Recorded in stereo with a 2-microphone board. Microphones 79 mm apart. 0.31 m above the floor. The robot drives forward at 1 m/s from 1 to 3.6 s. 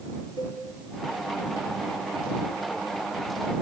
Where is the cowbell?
60° left (ahead or behind), 3.5 m.